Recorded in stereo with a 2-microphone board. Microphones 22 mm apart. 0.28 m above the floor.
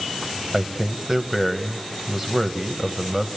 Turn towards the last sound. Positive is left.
turn(degrees=-15)  # may be behind; listen again after turning